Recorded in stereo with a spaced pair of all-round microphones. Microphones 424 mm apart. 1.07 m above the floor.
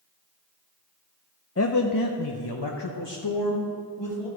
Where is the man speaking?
35° left (ahead or behind), 0.5 m; by 4.3 s 85° left, 1.8 m.